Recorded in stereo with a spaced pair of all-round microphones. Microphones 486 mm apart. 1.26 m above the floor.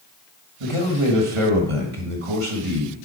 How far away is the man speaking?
About 1.6 m.